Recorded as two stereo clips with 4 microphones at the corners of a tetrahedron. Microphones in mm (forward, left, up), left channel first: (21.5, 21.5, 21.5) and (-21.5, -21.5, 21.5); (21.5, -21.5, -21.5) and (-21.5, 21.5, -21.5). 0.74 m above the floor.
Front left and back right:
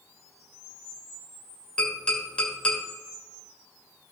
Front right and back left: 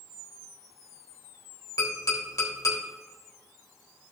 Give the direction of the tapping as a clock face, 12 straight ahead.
1 o'clock.